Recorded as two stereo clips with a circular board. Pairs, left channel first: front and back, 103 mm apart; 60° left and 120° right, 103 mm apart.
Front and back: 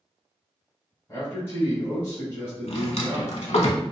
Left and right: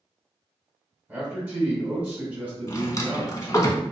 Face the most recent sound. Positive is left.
turn(degrees=5)